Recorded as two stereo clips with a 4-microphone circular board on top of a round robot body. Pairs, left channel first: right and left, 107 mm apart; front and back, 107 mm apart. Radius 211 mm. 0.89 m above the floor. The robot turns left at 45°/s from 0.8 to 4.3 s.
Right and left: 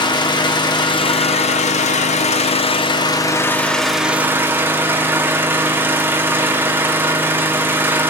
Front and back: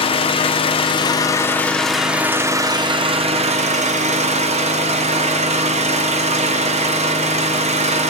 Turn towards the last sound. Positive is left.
turn(degrees=160)